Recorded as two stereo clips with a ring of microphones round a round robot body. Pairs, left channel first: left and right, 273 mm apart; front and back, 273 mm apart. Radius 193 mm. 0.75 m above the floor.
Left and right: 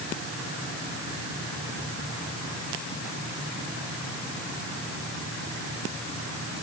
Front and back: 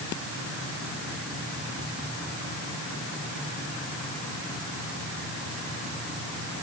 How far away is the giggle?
No giggle in this recording.